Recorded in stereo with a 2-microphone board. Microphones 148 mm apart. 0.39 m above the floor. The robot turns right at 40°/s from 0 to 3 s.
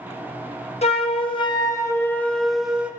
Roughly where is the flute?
Left.